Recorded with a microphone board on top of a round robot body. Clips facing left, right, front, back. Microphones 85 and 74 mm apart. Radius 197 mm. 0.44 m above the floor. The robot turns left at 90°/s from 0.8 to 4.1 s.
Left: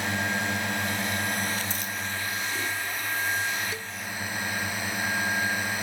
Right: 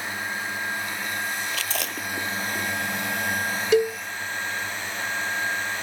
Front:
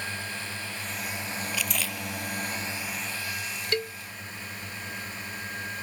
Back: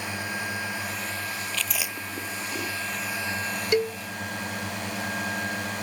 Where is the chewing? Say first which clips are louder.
Right 2 dB, even; 75° right; by 2.7 s 175° left.